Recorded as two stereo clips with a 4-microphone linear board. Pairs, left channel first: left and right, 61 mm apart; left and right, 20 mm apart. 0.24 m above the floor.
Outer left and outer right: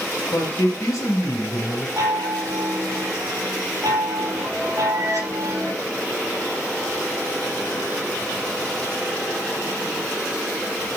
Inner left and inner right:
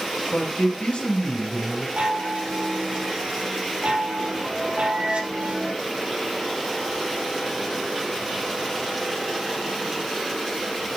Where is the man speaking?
75° left (ahead or behind), 3.5 m.